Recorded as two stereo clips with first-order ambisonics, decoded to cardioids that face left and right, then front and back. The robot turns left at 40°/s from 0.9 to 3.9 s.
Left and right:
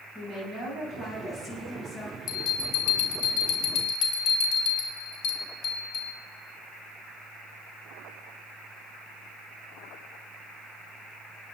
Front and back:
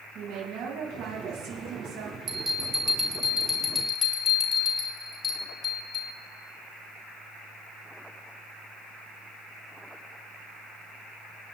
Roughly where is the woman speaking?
Behind right.